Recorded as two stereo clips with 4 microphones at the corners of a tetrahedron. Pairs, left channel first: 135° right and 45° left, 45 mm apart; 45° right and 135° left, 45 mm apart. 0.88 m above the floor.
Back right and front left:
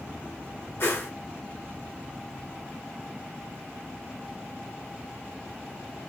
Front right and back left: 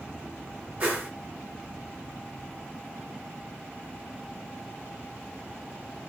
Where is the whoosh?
165° right, 1.0 m.